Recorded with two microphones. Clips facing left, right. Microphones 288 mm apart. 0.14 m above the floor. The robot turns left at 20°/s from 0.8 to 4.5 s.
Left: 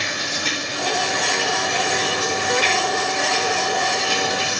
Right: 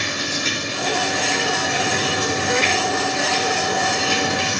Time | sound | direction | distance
0.0 | running water | 15° left | 10 m